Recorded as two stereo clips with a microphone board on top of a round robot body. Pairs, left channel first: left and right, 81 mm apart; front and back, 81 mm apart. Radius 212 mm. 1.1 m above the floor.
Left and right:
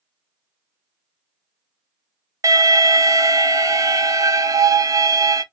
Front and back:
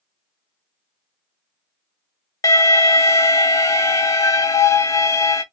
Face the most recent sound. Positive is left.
turn(degrees=-45)